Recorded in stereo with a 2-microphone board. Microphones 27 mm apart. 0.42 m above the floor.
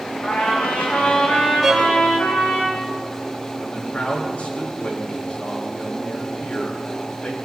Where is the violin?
10° right (ahead or behind), 4.5 m.